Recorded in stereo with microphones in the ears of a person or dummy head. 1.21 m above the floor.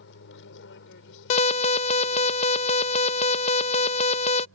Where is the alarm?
35° left (ahead or behind).